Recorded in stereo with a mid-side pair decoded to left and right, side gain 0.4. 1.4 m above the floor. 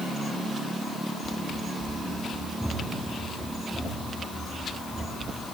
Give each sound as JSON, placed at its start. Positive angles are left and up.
{"t": 1.2, "sound": "running footsteps", "azimuth_deg": 0, "distance_m": 8.0}